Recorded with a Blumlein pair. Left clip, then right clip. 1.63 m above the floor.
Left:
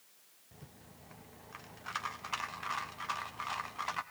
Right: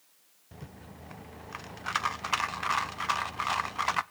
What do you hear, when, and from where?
0.5 s a rattle: 65° right, 0.5 m